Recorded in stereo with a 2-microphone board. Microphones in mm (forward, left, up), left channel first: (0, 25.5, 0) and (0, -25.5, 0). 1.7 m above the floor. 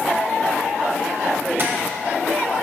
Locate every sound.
1.6 s tapping: 45° right (ahead or behind), 1.1 m